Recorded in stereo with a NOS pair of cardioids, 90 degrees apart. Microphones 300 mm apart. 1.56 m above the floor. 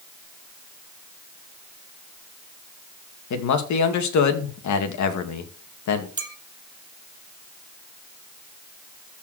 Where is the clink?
15° right, 2.5 m.